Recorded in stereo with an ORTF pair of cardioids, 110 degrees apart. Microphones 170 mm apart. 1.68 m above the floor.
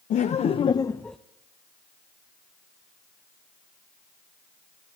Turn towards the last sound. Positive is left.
turn(degrees=0)